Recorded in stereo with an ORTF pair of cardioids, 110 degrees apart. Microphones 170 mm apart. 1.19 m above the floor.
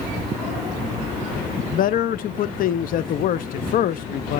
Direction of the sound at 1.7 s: 55° left.